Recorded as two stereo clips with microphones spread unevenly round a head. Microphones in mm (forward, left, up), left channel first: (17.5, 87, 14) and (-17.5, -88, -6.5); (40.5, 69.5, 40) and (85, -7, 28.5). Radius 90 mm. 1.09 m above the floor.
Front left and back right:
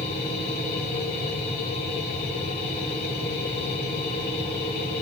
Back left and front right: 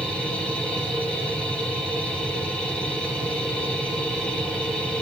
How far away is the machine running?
About 2.5 m.